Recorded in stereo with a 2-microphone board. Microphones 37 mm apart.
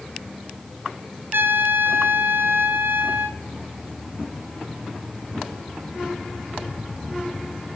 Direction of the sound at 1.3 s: 80° right.